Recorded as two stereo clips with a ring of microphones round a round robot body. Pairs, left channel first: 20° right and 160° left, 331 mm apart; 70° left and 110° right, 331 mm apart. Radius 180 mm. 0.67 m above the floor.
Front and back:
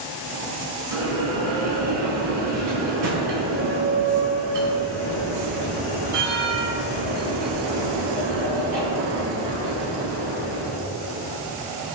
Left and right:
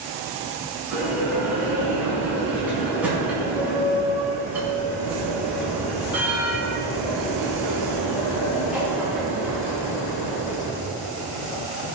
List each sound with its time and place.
0.9 s a bell: 160° left, 5 m